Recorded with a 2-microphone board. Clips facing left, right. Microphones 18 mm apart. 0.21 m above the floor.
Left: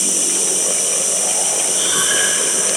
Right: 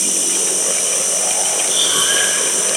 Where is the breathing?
70° right (ahead or behind), 4.5 m.